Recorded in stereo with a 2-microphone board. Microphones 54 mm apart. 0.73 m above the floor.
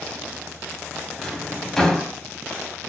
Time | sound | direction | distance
1.2 | a drawer | 10° left (ahead or behind) | 2 m